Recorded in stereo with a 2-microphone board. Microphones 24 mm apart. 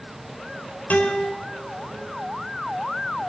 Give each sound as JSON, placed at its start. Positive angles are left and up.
{"t": 0.9, "sound": "a guitar", "side_deg": 75, "distance_m": 3.5}